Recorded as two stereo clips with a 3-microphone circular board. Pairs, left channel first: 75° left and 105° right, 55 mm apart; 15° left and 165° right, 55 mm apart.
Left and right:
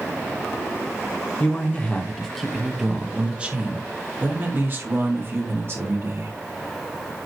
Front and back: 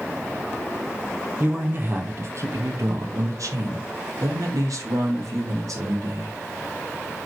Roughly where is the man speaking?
Behind left.